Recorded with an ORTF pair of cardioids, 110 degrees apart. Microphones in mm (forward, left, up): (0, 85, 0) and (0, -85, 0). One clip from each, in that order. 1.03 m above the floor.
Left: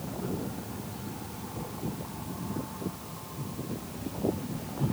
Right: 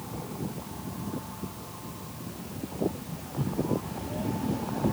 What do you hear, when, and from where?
Only background noise.